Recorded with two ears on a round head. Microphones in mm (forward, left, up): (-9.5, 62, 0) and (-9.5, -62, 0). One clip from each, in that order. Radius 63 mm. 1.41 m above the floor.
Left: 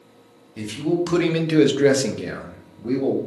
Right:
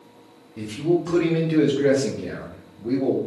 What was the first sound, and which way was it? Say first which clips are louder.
A man speaking: right 1 dB; 45° left (ahead or behind).